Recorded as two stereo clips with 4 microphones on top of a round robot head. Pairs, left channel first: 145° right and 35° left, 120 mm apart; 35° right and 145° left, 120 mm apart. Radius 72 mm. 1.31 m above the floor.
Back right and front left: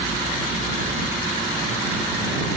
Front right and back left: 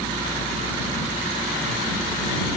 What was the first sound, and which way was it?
Only background noise.